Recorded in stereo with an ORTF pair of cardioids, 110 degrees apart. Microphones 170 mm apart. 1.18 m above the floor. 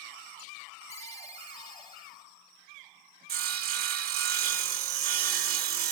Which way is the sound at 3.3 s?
60° right.